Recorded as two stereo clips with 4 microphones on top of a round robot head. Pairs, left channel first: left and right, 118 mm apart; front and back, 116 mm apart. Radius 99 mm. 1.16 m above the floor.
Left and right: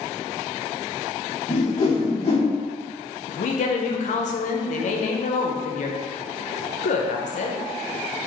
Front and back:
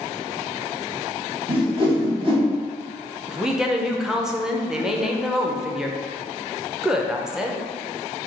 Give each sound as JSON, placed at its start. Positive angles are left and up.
{"t": 1.5, "sound": "a whoosh", "azimuth_deg": 145, "distance_m": 1.2}
{"t": 3.3, "sound": "a woman speaking", "azimuth_deg": 95, "distance_m": 0.7}